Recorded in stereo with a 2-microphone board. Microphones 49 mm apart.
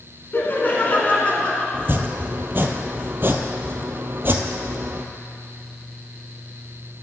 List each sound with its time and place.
0.3 s laughter: 45° left (ahead or behind), 2 m; by 1.6 s 20° left (ahead or behind), 2 m
1.7 s chopping: 50° right (ahead or behind), 0.6 m